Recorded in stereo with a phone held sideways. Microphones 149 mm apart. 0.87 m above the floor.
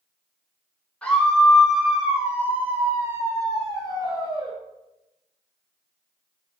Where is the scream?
10° left (ahead or behind), 3 m; by 4.5 s 40° right (ahead or behind), 2.5 m.